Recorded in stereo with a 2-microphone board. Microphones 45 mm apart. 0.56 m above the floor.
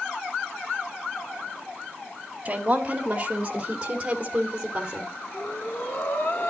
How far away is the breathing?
About 1.7 m.